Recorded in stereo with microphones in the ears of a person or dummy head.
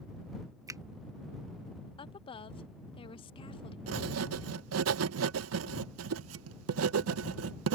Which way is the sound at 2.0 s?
30° left (ahead or behind).